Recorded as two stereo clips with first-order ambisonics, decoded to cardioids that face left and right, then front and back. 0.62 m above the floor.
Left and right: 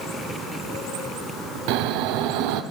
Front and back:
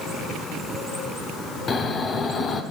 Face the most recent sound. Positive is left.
turn(degrees=-70)